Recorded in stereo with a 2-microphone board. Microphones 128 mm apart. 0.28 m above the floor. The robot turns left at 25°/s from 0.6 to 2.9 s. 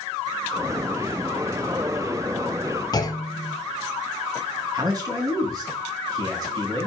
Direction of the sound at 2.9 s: 30° left (ahead or behind).